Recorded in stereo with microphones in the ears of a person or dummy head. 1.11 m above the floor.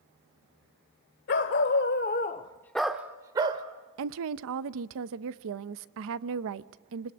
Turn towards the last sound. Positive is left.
turn(degrees=-70)  # may be behind; listen again after turning